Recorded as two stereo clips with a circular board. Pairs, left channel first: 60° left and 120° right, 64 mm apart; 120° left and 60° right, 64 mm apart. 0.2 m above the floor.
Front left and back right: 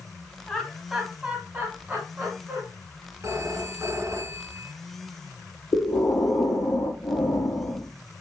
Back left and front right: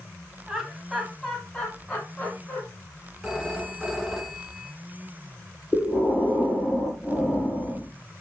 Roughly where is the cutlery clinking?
I don't hear cutlery clinking.